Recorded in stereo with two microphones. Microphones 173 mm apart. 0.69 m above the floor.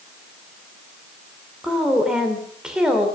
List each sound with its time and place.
1.6 s a woman speaking: 5° right (ahead or behind), 2.5 m